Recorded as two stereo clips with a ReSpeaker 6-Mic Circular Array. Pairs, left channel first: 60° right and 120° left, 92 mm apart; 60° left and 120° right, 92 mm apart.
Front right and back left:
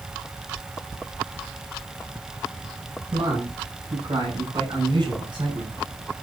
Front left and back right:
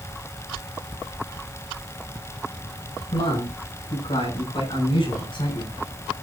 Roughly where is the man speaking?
Left.